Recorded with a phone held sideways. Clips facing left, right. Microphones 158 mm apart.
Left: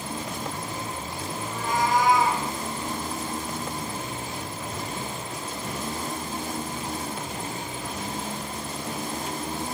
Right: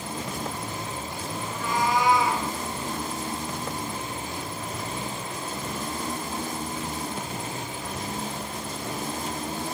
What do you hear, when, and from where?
1.4 s a cat meowing: 50° left (ahead or behind), 3.5 m